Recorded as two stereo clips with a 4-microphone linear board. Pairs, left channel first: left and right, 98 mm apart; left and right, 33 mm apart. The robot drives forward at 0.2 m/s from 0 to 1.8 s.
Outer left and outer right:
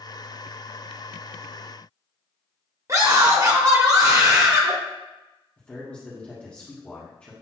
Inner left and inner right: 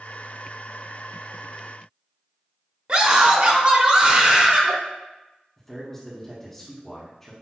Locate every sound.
2.9 s a scream: 35° right (ahead or behind), 0.7 m
5.6 s a man speaking: 10° left (ahead or behind), 1.3 m